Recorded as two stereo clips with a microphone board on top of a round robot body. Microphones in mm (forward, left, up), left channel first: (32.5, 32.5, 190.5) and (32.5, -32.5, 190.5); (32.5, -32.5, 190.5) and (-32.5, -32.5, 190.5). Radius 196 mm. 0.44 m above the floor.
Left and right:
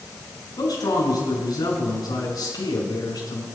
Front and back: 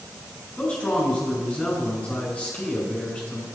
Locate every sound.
0.6 s a man speaking: 75° left, 6 m